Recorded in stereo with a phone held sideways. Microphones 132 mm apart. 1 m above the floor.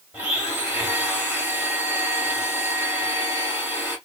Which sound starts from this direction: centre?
A blender, at 0.1 s.